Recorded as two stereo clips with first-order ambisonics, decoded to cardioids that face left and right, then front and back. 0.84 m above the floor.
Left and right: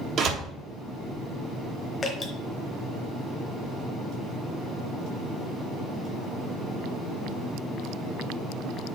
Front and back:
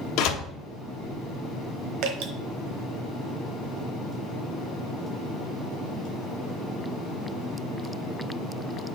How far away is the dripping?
About 1.1 m.